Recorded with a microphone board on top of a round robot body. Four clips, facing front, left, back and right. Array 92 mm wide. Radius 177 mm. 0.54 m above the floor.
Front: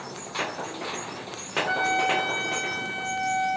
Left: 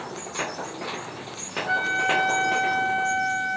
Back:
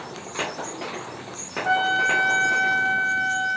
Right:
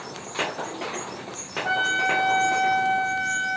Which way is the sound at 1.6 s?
145° right.